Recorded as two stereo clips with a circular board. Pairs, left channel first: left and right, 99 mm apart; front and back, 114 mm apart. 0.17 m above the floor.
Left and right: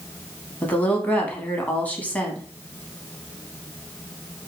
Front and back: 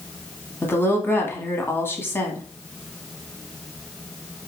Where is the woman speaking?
35° left, 1.1 m.